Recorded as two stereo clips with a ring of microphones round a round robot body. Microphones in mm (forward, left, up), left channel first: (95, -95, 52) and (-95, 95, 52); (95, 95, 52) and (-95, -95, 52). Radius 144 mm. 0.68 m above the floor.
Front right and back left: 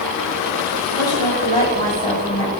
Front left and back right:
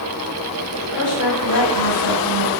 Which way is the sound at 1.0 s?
30° left.